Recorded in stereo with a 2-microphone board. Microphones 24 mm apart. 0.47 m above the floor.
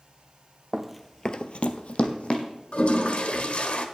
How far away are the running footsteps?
About 1.0 m.